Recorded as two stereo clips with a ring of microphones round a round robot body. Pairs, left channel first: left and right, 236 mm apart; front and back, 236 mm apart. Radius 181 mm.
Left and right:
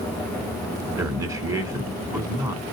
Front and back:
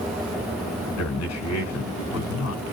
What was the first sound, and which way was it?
A man speaking, 15° right.